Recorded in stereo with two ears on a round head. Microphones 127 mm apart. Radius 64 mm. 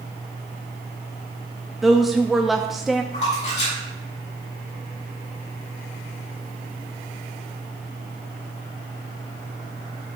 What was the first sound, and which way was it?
A woman speaking, centre (ahead or behind).